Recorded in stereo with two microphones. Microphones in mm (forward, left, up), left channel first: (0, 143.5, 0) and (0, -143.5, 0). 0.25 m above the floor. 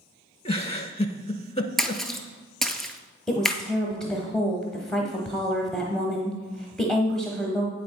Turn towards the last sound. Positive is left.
turn(degrees=0)  # may be behind; listen again after turning